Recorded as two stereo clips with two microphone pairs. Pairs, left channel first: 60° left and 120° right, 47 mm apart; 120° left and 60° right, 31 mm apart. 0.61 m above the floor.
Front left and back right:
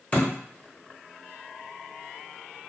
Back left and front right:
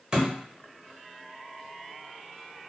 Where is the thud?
5° left, 1.0 m.